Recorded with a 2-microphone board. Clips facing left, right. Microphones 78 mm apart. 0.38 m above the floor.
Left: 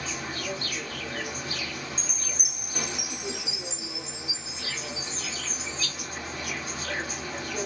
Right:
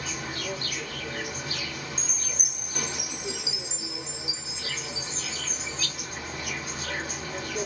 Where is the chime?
Centre (ahead or behind), 1.8 m.